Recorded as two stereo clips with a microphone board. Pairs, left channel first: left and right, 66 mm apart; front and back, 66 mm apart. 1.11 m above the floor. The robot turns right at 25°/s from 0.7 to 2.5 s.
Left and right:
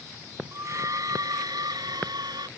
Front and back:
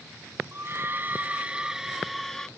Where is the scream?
130° right; by 2.5 s 85° right.